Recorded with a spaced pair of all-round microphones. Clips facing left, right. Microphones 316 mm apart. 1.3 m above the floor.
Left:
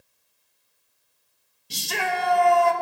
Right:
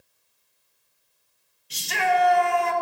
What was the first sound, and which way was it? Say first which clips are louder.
A shout: right 4 dB; 50° left (ahead or behind).